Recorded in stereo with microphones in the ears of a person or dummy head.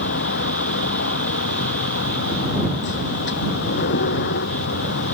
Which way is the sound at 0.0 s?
60° left (ahead or behind).